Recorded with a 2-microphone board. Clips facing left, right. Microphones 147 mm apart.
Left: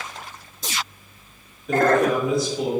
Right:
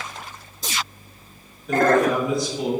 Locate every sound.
1.7 s a man speaking: centre (ahead or behind), 1.5 m